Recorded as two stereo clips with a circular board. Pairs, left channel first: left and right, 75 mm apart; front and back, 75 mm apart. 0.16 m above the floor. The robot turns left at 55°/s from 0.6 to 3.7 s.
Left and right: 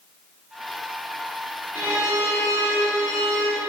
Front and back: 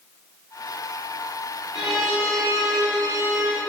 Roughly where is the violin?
Right.